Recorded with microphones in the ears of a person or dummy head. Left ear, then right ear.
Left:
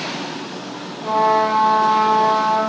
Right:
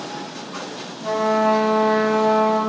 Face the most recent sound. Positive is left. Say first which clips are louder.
# left 3 dB
turn(degrees=-25)  # may be behind; listen again after turning